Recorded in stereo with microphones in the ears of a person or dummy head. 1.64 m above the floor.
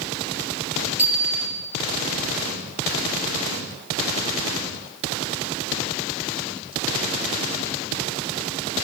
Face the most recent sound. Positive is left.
turn(degrees=-10)  # may be behind; listen again after turning